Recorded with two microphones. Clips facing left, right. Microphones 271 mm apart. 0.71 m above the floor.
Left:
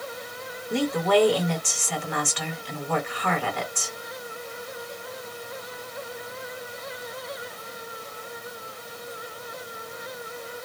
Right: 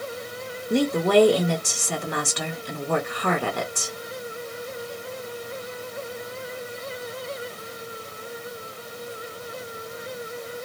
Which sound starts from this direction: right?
A woman speaking, at 0.7 s.